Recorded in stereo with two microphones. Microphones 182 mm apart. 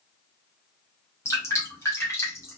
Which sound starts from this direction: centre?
Dripping, at 1.2 s.